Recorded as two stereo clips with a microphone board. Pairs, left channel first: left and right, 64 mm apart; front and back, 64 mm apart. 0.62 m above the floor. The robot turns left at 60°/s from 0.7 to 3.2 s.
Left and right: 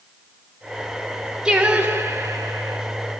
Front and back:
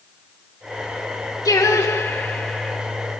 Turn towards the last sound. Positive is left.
turn(degrees=-115)